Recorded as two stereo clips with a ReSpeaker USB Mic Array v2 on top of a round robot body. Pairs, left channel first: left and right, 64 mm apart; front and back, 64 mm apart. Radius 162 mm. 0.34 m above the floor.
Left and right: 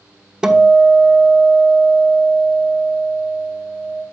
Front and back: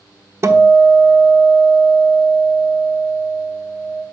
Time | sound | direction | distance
0.4 | a guitar | 165° right | 1.3 m